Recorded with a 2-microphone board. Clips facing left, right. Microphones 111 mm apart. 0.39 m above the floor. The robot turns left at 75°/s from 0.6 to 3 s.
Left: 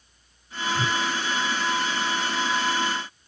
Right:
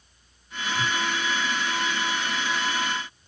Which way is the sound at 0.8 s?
80° left.